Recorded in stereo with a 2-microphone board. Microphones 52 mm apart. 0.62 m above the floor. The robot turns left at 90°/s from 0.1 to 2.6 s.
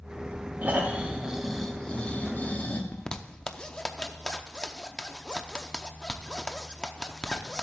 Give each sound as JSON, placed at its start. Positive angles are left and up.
{"t": 0.6, "sound": "snoring", "azimuth_deg": -100, "distance_m": 1.0}
{"t": 2.9, "sound": "a zipper", "side_deg": 15, "distance_m": 0.6}